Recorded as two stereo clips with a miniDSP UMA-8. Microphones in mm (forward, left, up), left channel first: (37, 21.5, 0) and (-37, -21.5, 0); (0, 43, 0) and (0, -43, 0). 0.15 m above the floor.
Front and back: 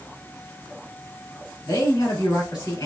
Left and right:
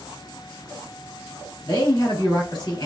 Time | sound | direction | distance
1.6 | a man speaking | 55° left | 3.5 m